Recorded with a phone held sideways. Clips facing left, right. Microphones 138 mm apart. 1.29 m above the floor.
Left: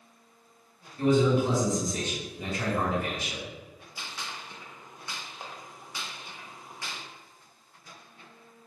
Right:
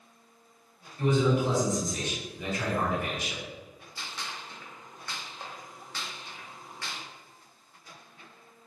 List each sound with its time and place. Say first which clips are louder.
1.0 s a man speaking: left 2 dB; 55° left (ahead or behind), 1.9 m
4.0 s a gunshot: even; 10° left (ahead or behind), 0.7 m